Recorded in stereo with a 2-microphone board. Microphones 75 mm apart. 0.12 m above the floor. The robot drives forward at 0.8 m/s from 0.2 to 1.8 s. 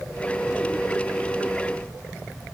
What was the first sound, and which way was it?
Only background noise.